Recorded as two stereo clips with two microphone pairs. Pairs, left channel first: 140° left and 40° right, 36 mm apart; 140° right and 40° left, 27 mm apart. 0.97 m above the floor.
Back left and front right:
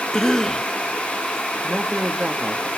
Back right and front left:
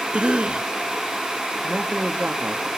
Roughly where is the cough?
Ahead left.